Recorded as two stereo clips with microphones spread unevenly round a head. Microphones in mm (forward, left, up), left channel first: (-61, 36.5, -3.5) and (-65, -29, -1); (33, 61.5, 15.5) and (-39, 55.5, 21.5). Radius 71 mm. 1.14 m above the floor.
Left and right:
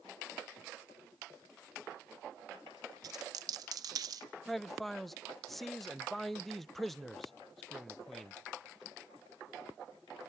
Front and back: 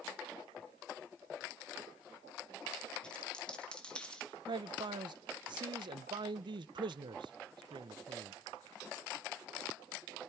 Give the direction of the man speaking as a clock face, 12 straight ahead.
6 o'clock.